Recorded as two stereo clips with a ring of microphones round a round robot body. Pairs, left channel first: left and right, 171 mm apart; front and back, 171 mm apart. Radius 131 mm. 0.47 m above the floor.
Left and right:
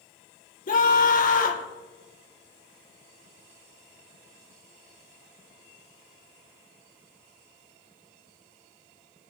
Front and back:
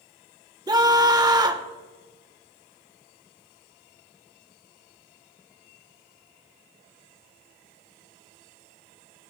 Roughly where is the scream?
Behind left.